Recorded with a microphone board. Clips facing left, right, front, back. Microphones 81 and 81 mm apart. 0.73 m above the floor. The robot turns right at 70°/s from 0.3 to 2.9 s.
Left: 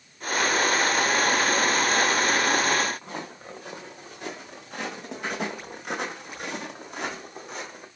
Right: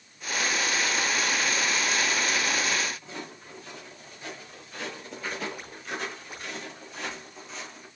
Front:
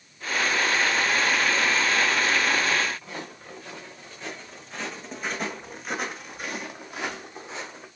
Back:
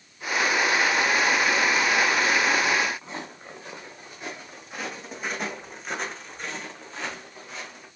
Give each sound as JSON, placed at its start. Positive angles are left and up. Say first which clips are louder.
{"t": 3.0, "sound": "footsteps", "louder": "left 4 dB, back 1 dB", "azimuth_deg": 110, "distance_m": 3.5}